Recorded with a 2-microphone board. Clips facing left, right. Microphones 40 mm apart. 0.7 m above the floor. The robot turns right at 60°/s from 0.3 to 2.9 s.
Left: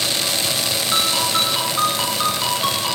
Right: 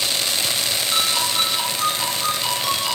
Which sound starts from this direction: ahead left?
A ringtone, at 0.9 s.